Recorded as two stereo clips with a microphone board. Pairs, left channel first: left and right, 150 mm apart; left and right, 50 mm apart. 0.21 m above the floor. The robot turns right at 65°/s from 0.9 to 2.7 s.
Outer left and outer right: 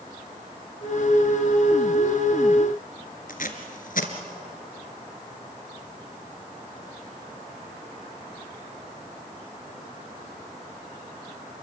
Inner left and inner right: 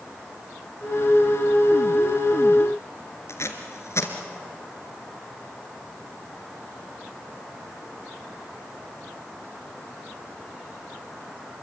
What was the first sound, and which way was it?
Tape being pulled, 65° left (ahead or behind).